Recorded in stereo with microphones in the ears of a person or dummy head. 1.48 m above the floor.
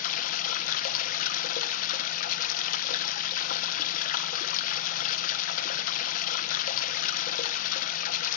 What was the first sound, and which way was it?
Running water, 50° left (ahead or behind).